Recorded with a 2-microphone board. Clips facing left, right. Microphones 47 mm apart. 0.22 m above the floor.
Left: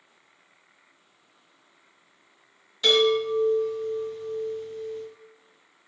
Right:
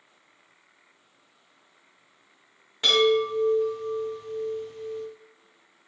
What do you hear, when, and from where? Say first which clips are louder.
2.8 s a chime: even; 40° right (ahead or behind), 1.8 m